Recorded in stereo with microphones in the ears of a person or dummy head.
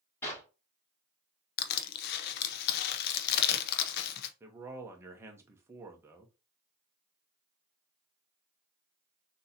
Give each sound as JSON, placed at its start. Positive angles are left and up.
{"t": 0.2, "sound": "a clap", "side_deg": 15, "distance_m": 3.0}
{"t": 1.6, "sound": "crushing", "side_deg": 60, "distance_m": 0.7}
{"t": 4.4, "sound": "a man speaking", "side_deg": -15, "distance_m": 0.9}